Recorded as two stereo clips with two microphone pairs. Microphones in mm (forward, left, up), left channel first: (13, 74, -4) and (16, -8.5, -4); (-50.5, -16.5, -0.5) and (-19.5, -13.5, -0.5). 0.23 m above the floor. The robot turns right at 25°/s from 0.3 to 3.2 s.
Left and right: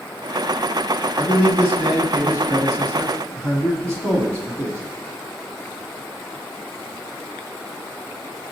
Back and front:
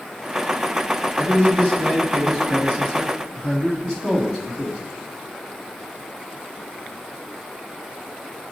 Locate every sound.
1.2 s a man speaking: 160° right, 1.6 m; by 4.8 s 110° right, 1.6 m